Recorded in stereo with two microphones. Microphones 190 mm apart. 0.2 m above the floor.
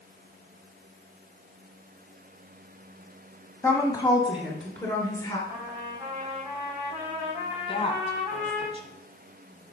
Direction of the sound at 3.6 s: 15° left (ahead or behind).